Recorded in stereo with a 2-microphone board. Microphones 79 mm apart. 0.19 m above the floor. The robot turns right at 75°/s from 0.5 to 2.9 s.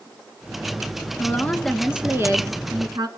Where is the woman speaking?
135° left, 2.5 m; by 3.1 s 95° right, 2.5 m.